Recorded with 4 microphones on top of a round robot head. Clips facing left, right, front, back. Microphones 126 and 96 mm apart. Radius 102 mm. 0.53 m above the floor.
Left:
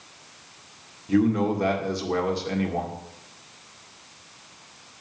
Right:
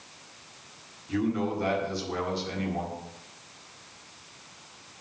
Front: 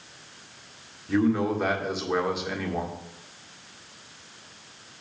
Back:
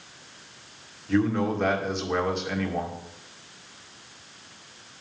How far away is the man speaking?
About 1.9 m.